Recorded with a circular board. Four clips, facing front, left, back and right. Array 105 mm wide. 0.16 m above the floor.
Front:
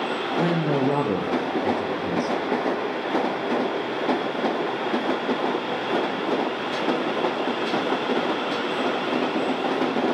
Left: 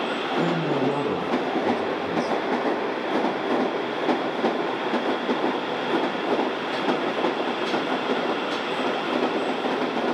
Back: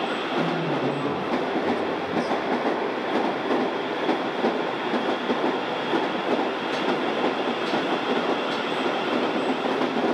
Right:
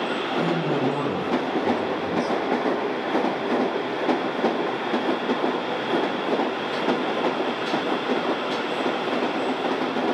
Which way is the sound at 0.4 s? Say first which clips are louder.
Even, front 4 dB; 20° left.